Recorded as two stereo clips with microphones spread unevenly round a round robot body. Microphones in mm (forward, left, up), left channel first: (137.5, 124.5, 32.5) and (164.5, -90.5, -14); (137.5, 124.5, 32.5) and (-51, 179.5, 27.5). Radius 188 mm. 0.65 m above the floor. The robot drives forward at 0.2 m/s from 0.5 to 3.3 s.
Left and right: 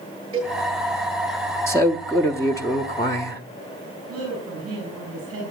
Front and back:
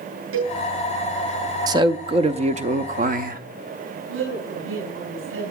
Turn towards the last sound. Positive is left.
turn(degrees=-160)